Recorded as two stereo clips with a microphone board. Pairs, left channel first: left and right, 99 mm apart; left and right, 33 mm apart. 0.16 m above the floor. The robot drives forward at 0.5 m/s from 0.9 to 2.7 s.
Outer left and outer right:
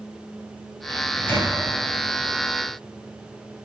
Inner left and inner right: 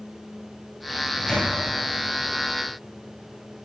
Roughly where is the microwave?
Left.